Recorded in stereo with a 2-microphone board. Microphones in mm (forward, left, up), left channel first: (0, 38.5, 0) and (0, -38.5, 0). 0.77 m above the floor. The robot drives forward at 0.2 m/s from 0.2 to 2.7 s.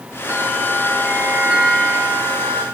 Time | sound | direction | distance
0.3 | a bell | 10° right (ahead or behind) | 1.1 m